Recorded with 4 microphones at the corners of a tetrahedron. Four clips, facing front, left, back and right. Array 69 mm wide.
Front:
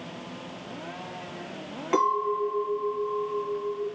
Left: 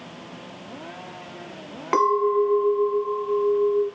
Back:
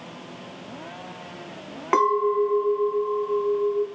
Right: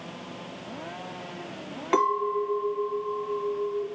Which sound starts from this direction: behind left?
A clink, at 1.9 s.